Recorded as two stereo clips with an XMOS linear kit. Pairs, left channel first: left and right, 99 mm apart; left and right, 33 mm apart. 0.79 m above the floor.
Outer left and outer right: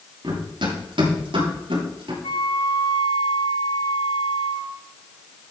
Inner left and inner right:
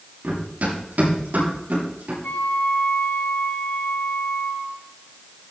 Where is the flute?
70° left (ahead or behind), 4.5 m.